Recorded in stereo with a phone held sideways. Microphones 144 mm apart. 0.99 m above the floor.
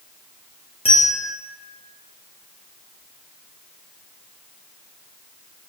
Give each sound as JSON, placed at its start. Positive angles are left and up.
{"t": 0.8, "sound": "a bell", "side_deg": 40, "distance_m": 0.7}